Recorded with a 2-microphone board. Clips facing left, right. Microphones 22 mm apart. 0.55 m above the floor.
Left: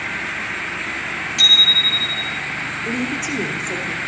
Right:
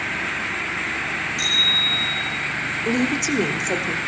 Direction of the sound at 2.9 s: 45° right (ahead or behind).